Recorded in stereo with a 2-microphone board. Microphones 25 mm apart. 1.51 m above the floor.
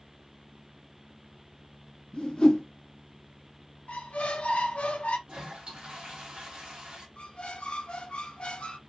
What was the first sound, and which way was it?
A whoosh, 40° left (ahead or behind).